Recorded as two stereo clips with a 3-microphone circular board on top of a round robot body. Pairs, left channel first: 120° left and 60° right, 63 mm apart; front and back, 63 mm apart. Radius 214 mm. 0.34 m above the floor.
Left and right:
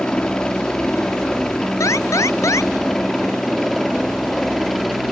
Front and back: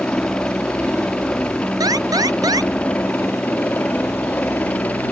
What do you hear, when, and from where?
0.0 s a helicopter: 55° left; by 5.1 s 35° left
1.8 s an alarm: 160° left